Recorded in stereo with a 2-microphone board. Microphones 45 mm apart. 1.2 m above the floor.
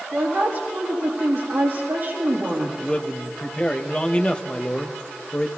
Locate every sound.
0.1 s a woman speaking: 75° right (ahead or behind), 2.5 m
2.8 s a man speaking: 25° left (ahead or behind), 1.0 m